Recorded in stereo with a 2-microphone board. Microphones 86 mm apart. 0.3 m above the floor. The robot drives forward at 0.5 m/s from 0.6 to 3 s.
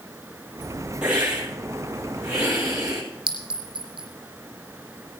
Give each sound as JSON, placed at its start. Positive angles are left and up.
{"t": 1.0, "sound": "a hiss", "side_deg": -15, "distance_m": 8.0}
{"t": 3.3, "sound": "a clink", "side_deg": -75, "distance_m": 4.0}